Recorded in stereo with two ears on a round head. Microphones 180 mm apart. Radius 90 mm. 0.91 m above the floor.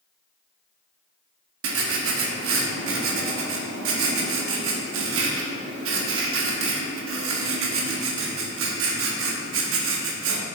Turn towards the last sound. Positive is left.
turn(degrees=-70)  # may be behind; listen again after turning